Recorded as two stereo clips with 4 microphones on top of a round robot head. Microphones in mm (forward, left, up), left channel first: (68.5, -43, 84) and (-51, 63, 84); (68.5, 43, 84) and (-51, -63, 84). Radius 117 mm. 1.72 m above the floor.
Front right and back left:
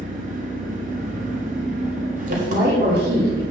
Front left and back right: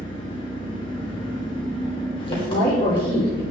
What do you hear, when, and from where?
0.0 s an engine running: 100° left, 1.5 m
2.3 s a woman speaking: 105° left, 4 m